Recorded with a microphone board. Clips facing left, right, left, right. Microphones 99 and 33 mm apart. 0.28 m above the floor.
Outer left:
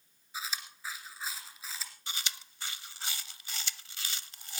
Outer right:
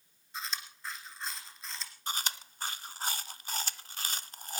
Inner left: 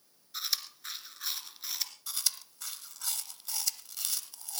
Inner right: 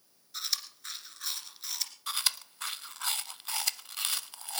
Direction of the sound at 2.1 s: 45° right (ahead or behind).